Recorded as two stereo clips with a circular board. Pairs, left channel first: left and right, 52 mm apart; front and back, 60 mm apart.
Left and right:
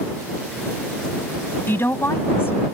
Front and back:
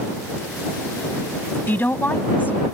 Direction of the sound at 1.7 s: 50° left.